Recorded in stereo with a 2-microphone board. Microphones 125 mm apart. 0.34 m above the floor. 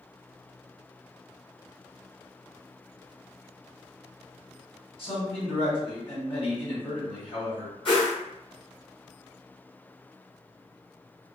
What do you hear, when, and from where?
5.0 s a man speaking: 50° left (ahead or behind), 1.7 m
7.8 s a whoosh: 50° left (ahead or behind), 1.8 m